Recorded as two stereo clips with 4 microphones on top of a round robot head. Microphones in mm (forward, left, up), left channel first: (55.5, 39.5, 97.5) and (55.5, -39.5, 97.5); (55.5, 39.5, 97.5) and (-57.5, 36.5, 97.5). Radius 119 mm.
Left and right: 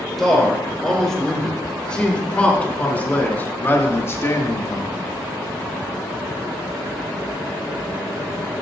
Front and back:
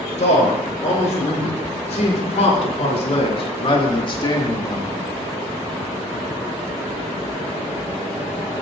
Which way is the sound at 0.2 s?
Straight ahead.